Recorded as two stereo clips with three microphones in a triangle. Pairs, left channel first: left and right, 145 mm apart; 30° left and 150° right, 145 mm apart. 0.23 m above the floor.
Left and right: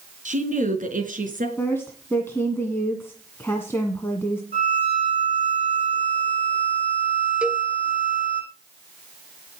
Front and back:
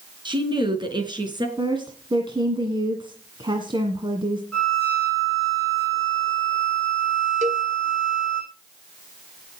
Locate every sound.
0.2 s a woman speaking: 100° right, 3 m; by 1.5 s 90° right, 4 m
1.6 s a woman speaking: 160° left, 1.9 m
4.5 s a violin: 50° right, 7 m
7.4 s a cowbell: 170° right, 0.8 m